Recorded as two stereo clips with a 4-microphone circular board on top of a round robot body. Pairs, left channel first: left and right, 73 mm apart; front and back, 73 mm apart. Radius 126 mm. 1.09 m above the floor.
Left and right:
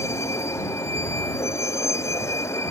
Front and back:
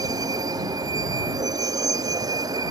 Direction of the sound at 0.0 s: 145° left.